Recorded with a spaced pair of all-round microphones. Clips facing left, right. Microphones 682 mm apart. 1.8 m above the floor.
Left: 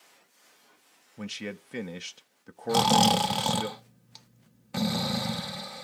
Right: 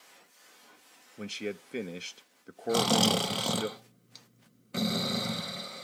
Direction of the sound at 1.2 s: 30° left (ahead or behind).